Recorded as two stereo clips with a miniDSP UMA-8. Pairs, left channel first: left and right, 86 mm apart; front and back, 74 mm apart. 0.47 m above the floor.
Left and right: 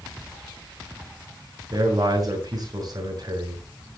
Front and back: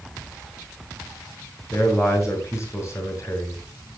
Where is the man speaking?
50° right, 7 m.